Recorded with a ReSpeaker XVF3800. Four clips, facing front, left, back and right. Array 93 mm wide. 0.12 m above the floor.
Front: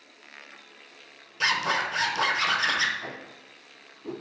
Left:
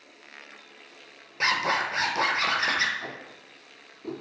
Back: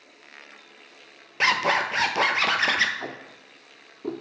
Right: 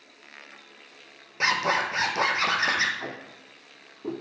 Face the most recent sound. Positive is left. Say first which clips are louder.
# right 2 dB, back 2 dB
turn(degrees=-165)